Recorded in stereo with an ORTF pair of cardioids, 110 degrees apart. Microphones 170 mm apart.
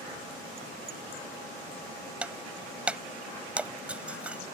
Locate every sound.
2.2 s breaking glass: 5° right